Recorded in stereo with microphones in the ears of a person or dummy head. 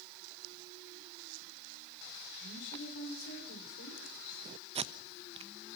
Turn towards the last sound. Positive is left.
turn(degrees=-25)  # may be behind; listen again after turning